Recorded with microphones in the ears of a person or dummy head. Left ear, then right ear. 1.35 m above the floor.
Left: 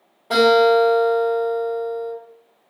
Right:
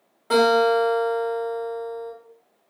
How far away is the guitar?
About 1.2 m.